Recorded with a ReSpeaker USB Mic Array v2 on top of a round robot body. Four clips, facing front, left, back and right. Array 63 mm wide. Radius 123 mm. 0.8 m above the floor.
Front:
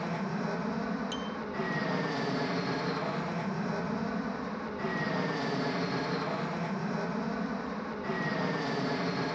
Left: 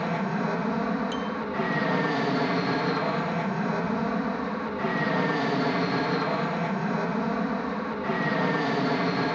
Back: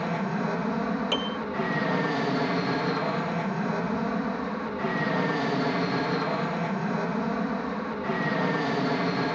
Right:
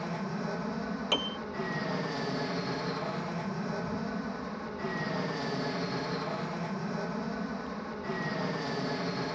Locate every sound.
0.0 s an aircraft: 120° left
1.1 s a piano: 145° right